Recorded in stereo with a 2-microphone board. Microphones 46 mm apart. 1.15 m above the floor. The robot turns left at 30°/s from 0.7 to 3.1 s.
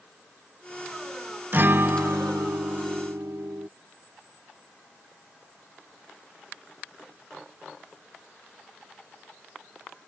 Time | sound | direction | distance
1.5 | a guitar | 45° right | ?